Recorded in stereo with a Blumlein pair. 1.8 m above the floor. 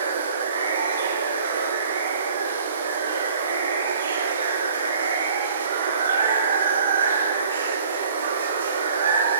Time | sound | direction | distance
0.0 | running water | 70° right | 1.7 m